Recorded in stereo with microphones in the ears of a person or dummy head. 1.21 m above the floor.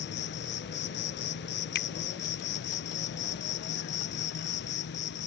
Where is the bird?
I don't hear a bird.